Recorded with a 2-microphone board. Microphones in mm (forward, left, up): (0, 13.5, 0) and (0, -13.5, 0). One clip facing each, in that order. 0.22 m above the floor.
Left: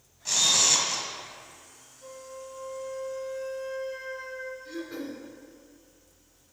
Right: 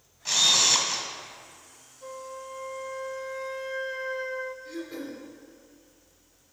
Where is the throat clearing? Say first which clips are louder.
Even; 15° left (ahead or behind), 1.4 m.